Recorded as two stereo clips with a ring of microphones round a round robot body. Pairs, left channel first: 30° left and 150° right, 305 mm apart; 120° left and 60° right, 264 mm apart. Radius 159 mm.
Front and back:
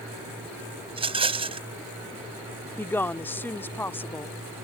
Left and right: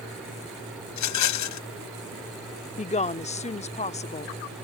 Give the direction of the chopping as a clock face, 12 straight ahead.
No chopping in this recording.